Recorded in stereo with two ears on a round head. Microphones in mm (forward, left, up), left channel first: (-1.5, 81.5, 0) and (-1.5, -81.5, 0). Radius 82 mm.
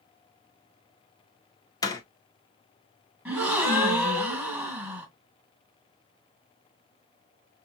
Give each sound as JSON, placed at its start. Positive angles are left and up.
{"t": 1.8, "sound": "a door slam", "side_deg": 20, "distance_m": 1.0}
{"t": 3.2, "sound": "a gasp", "side_deg": -5, "distance_m": 2.0}